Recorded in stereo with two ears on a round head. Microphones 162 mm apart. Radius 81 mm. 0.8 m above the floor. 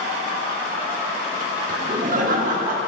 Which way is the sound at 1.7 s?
50° right (ahead or behind).